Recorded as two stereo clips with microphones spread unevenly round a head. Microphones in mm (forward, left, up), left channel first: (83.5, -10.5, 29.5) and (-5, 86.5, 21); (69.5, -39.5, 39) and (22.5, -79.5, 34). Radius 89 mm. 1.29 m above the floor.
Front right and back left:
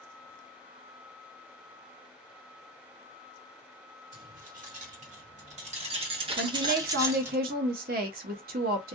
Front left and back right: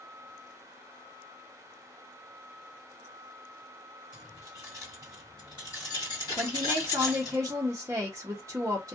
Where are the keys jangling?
120° left, 1.9 m; by 7.4 s 55° left, 1.2 m.